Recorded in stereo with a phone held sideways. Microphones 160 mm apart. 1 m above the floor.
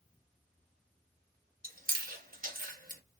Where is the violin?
No violin in this recording.